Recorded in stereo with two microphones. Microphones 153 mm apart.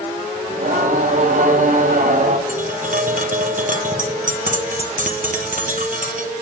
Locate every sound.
0.5 s singing: 60° right (ahead or behind), 0.9 m
2.5 s tapping: 60° right (ahead or behind), 0.9 m